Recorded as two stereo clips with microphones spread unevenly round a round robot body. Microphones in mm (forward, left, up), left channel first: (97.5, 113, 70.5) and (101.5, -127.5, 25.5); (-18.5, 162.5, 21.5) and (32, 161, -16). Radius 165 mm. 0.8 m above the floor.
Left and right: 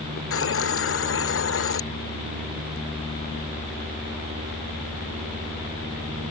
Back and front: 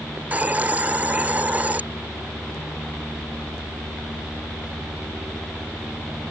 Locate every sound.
0.2 s a hiss: 60° left